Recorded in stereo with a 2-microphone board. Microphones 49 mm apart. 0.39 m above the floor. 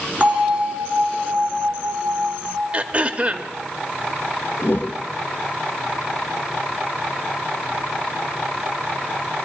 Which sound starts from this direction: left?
A whoosh, at 4.6 s.